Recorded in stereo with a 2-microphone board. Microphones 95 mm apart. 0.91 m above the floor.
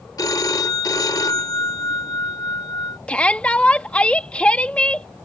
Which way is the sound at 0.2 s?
40° left (ahead or behind).